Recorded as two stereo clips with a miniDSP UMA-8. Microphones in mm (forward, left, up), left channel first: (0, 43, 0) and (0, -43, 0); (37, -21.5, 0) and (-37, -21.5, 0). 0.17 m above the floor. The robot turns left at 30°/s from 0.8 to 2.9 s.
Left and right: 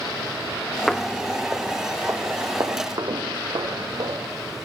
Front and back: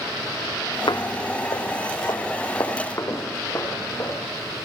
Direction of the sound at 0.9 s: 5° left.